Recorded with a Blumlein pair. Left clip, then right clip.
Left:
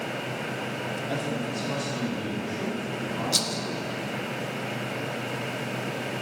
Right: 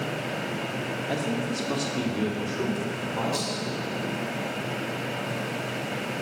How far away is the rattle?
About 1.0 m.